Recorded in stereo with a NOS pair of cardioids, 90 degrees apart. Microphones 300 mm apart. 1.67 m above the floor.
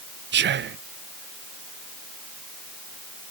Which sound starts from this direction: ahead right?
Whispering, at 0.3 s.